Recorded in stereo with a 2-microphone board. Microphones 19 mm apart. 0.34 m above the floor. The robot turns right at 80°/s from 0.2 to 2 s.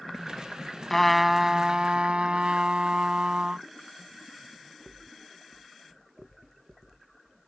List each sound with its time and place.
0.9 s a trumpet: 160° left; by 3.6 s 115° right